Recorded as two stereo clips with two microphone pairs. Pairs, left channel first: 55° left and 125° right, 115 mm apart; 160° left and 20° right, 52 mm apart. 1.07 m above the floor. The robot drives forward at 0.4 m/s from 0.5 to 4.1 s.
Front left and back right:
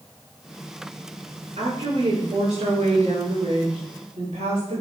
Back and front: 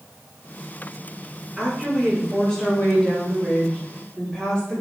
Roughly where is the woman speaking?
Right.